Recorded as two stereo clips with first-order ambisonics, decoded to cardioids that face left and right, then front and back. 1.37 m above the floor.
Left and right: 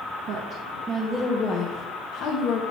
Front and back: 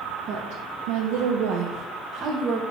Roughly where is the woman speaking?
Behind right.